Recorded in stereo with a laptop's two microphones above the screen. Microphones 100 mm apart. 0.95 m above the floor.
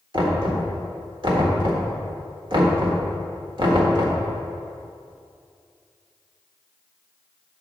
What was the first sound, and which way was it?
Knocking, 50° right (ahead or behind).